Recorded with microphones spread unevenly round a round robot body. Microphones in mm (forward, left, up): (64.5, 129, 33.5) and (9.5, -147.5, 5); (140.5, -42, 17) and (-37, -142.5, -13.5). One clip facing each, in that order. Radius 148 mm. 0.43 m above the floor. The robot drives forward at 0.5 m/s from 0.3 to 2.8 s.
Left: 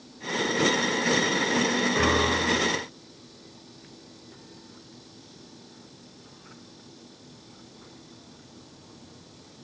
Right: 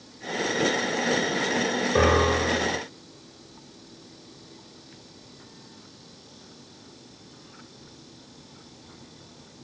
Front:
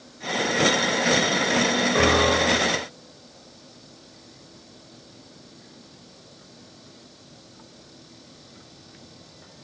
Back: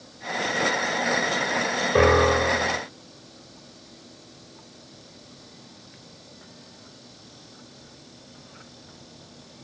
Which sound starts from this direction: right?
A piano, at 1.9 s.